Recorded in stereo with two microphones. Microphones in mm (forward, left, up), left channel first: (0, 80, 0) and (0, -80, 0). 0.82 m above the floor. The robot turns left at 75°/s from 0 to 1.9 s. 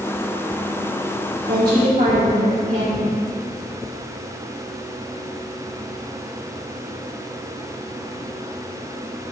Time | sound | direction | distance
1.4 | a woman speaking | 80° right | 2.5 m